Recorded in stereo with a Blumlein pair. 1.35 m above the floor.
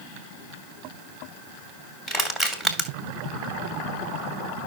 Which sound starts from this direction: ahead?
Crushing, at 2.1 s.